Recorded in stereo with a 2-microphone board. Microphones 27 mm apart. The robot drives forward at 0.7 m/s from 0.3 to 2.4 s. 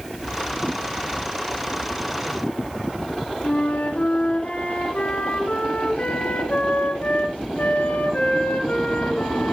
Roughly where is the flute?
Left.